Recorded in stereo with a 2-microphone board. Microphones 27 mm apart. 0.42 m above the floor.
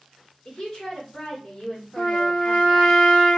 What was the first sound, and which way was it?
A woman speaking, 30° left (ahead or behind).